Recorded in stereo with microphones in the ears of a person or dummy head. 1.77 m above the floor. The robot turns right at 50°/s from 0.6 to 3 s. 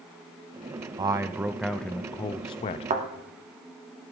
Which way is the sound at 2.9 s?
40° right (ahead or behind).